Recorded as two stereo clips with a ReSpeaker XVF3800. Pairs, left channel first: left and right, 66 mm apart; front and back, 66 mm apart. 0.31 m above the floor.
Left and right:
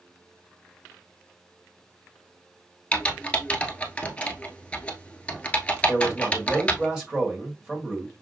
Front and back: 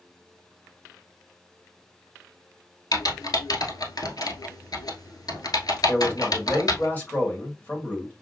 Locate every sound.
2.9 s typing on a keyboard: 20° left, 1.0 m
5.9 s a man speaking: 20° right, 1.6 m